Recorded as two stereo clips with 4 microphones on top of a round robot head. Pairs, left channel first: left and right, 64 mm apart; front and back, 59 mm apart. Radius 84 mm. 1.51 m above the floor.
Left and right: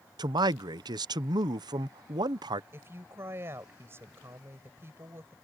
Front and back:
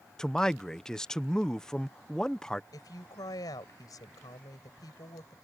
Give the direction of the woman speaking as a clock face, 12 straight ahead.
1 o'clock.